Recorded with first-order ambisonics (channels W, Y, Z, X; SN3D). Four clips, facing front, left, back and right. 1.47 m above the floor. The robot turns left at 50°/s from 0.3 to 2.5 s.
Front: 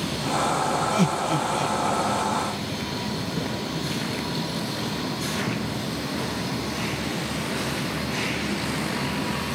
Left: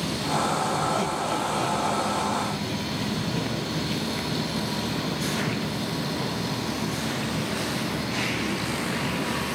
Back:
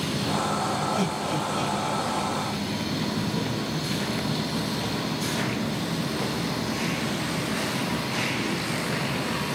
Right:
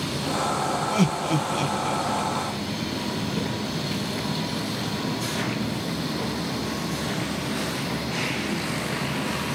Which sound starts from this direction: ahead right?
Laughter, at 0.9 s.